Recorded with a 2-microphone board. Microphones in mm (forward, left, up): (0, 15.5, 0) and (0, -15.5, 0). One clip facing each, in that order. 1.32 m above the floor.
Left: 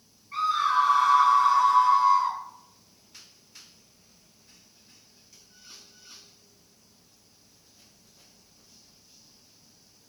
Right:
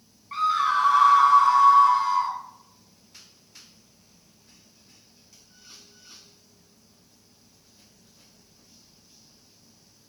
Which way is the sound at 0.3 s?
75° right (ahead or behind).